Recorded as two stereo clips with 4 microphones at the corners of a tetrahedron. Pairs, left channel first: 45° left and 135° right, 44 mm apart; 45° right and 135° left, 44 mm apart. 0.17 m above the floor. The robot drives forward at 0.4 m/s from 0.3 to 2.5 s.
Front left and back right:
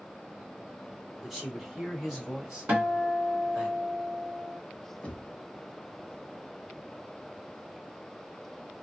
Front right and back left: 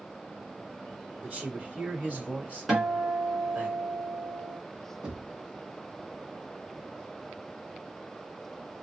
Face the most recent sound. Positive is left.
turn(degrees=90)